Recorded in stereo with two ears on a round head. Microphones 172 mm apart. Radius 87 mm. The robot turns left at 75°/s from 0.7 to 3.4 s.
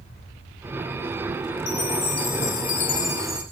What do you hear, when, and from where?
1.7 s a chime: 120° left, 3 m; by 3.4 s 10° right, 3 m